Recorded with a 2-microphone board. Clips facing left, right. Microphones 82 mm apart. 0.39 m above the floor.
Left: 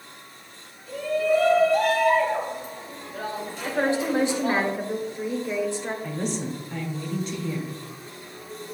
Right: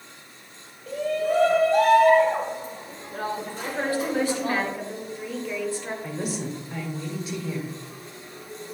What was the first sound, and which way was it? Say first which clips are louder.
A shout: left 2 dB; 60° right (ahead or behind).